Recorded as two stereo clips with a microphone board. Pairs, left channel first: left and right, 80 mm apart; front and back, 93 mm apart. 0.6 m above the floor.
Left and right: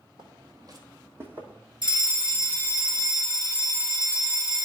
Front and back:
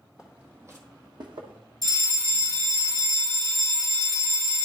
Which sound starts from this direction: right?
Footsteps, at 0.2 s.